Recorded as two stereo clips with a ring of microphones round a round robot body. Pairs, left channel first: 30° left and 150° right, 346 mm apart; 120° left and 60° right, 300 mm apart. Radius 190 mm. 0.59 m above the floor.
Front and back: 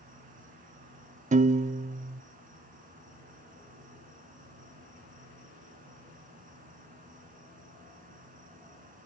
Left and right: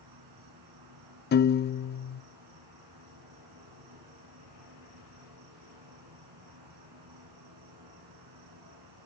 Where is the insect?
85° right, 3.5 m.